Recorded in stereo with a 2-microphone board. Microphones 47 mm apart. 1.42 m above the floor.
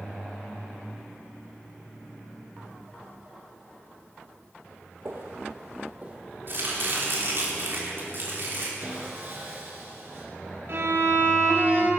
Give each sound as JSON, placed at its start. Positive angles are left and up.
{"t": 5.0, "sound": "footsteps", "side_deg": -50, "distance_m": 2.0}
{"t": 6.5, "sound": "chopping", "side_deg": -50, "distance_m": 3.5}
{"t": 8.8, "sound": "sawing", "side_deg": -50, "distance_m": 4.5}
{"t": 10.7, "sound": "a violin", "side_deg": -55, "distance_m": 2.5}